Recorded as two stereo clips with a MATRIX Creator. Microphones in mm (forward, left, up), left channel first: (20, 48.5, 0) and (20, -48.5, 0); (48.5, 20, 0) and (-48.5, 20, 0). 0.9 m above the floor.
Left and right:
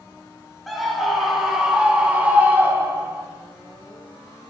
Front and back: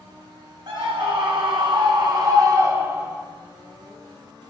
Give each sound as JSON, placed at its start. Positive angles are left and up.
{"t": 0.7, "sound": "a scream", "azimuth_deg": 180, "distance_m": 1.8}